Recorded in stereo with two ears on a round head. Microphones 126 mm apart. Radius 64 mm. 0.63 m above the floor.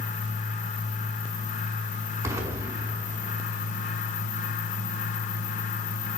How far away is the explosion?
About 6.5 m.